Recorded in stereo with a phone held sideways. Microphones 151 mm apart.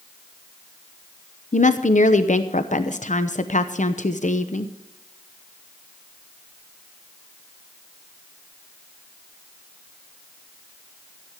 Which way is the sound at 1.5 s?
60° left (ahead or behind).